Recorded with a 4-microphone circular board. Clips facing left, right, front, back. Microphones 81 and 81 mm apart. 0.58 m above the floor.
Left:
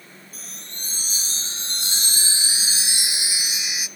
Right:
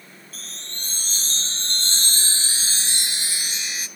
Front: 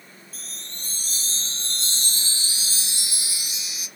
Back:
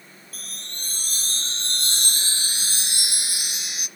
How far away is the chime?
About 0.8 m.